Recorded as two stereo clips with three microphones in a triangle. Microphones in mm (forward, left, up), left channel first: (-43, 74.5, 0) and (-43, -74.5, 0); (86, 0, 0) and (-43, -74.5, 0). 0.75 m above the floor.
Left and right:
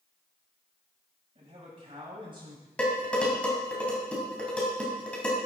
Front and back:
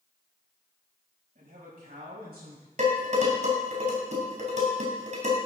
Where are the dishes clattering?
170° left, 3.5 m.